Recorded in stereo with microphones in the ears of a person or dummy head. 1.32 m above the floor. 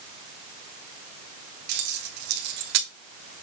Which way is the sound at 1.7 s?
65° right (ahead or behind).